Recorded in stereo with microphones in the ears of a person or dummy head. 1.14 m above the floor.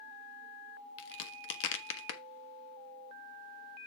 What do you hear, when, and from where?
1.0 s a crack: 75° left (ahead or behind), 1.4 m